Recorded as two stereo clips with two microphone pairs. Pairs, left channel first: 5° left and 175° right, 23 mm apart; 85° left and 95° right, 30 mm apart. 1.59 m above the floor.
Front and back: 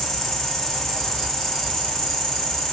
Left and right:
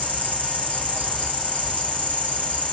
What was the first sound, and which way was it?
An insect, 65° right.